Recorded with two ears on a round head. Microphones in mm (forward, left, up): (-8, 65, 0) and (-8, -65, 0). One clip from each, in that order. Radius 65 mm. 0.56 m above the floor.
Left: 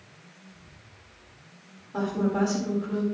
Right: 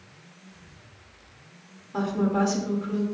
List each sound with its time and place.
0.5 s whispering: 40° right (ahead or behind), 4 m
1.9 s a woman speaking: 20° right (ahead or behind), 1.9 m